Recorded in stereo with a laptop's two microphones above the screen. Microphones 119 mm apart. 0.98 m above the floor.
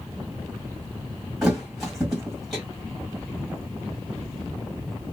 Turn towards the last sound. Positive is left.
turn(degrees=-5)  # may be behind; listen again after turning